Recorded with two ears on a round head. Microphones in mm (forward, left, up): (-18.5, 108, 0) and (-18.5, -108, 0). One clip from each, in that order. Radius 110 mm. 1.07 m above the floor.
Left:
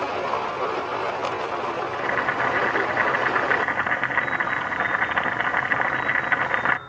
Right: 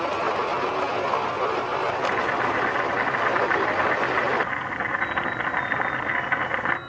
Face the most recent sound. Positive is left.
turn(degrees=20)  # may be behind; listen again after turning